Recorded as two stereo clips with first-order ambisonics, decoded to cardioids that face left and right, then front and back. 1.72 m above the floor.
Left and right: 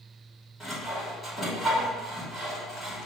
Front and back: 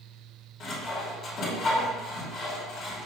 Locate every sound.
0.6 s sawing: 10° left, 1.6 m